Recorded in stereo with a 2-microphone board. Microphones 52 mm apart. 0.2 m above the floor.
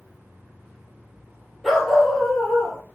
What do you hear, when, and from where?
1.6 s a dog barking: centre (ahead or behind), 3 m; by 2.8 s 15° left (ahead or behind), 3 m